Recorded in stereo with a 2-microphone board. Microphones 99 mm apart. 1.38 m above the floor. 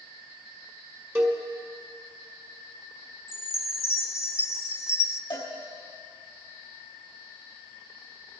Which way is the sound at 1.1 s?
25° right (ahead or behind).